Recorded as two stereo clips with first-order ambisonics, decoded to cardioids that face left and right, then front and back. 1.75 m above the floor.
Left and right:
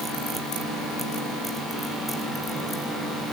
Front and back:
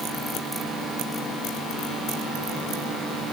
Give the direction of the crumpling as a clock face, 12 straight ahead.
No crumpling in this recording.